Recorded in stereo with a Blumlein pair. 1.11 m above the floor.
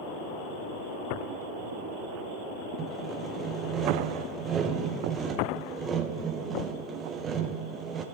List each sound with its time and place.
2.8 s sawing: 20° right, 0.8 m